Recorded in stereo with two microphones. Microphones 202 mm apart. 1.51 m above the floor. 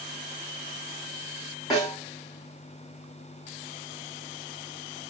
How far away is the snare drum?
About 2 m.